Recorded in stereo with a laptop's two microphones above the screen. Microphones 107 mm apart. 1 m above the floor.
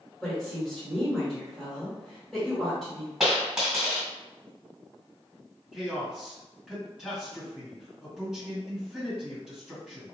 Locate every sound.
0.2 s a woman speaking: 5° left (ahead or behind), 1.4 m
3.2 s a dropped coin: 5° right (ahead or behind), 1.7 m
5.7 s a man speaking: centre (ahead or behind), 1.7 m